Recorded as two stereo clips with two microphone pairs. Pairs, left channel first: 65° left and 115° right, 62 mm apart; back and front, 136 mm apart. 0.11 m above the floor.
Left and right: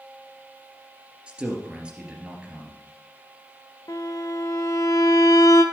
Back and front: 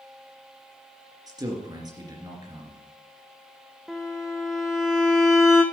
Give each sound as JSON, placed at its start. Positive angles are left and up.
{"t": 1.3, "sound": "a man speaking", "azimuth_deg": -50, "distance_m": 2.5}
{"t": 3.9, "sound": "a violin", "azimuth_deg": 90, "distance_m": 1.2}